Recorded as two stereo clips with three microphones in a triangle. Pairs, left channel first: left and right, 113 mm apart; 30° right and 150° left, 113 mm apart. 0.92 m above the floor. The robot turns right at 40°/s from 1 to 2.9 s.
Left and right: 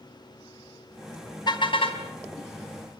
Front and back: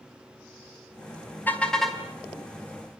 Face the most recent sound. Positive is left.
turn(degrees=100)